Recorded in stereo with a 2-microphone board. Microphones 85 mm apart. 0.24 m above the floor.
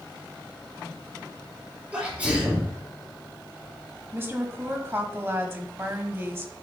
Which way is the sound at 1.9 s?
15° right (ahead or behind).